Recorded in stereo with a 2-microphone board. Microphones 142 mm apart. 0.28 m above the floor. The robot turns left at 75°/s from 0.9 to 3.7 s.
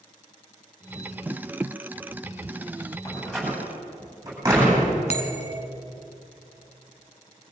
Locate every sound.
3.0 s a door slam: 30° left (ahead or behind), 9 m; by 4.9 s 20° right (ahead or behind), 9 m
5.1 s a bell: 50° left (ahead or behind), 1.4 m